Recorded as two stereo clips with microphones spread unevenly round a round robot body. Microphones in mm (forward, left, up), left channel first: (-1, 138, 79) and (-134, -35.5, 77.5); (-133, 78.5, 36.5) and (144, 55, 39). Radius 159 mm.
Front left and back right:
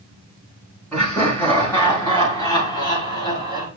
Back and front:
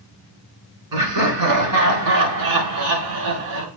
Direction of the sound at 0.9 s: 35° right.